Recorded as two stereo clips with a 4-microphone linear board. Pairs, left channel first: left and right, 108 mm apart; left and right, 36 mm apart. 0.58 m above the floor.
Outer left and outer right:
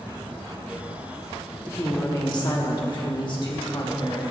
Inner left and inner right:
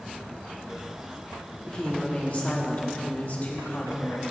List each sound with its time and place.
1.7 s a woman speaking: 25° left (ahead or behind), 1.1 m; by 4.2 s 45° left (ahead or behind), 2.0 m